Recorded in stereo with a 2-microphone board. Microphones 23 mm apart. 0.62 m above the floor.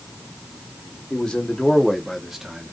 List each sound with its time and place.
1.1 s a man speaking: 50° left (ahead or behind), 1.0 m; by 2.8 s 20° right (ahead or behind), 0.9 m